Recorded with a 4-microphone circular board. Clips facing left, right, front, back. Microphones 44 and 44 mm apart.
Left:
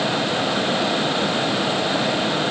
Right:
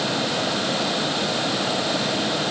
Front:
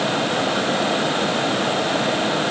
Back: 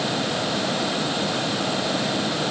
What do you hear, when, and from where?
Only background noise.